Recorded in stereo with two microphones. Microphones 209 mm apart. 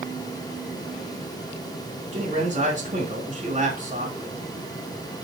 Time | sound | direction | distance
2.1 | a man speaking | 35° right (ahead or behind) | 3.5 m